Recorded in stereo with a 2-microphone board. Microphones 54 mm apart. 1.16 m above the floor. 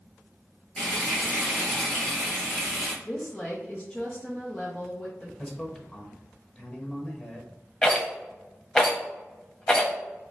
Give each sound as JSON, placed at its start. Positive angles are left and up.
{"t": 0.8, "sound": "frying", "side_deg": 0, "distance_m": 1.8}
{"t": 3.0, "sound": "a woman speaking", "side_deg": 15, "distance_m": 0.9}
{"t": 5.4, "sound": "a man speaking", "side_deg": 25, "distance_m": 1.0}
{"t": 7.8, "sound": "a rattle", "side_deg": 15, "distance_m": 1.0}